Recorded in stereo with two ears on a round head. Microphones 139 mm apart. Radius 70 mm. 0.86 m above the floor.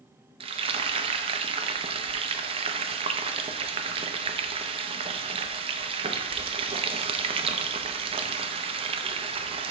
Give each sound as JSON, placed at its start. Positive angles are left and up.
{"t": 0.4, "sound": "frying", "side_deg": -35, "distance_m": 0.5}